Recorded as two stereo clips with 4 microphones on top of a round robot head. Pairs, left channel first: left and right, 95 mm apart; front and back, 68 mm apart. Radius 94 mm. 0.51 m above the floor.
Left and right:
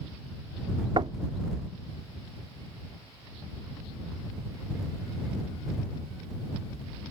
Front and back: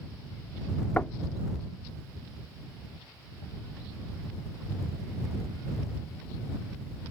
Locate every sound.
1.0 s knocking: 65° right